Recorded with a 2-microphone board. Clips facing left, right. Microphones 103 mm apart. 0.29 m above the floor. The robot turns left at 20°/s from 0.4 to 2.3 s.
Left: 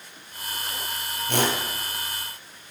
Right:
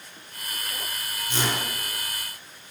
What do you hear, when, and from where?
1.3 s a whoosh: 60° left (ahead or behind), 4 m; by 1.6 s 55° left (ahead or behind), 4 m